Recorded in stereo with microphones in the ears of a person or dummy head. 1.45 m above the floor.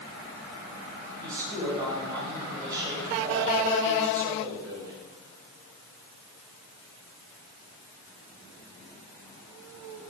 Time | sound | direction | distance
1.2 | a man speaking | 25° right (ahead or behind) | 7.5 m